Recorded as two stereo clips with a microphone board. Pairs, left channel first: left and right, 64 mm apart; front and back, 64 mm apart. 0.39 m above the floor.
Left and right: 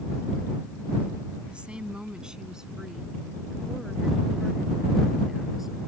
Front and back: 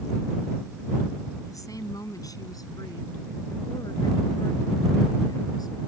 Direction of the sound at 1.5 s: 15° right.